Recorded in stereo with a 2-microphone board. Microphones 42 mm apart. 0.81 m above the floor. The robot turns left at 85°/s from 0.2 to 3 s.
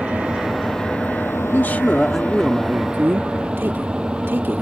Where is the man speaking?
70° left; by 4.6 s 65° right.